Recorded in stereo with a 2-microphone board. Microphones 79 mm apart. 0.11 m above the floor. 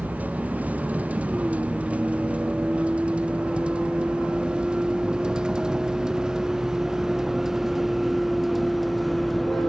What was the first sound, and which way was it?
A vehicle, 20° right (ahead or behind).